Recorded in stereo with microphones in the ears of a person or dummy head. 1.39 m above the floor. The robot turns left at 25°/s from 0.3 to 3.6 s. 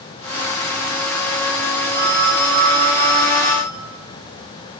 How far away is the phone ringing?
About 1.0 m.